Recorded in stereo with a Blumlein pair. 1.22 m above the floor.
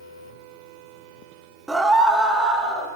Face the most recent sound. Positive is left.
turn(degrees=-5)